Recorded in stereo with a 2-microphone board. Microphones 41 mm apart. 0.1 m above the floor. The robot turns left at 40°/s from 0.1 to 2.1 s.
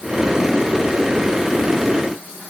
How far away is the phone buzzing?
No phone buzzing in this recording.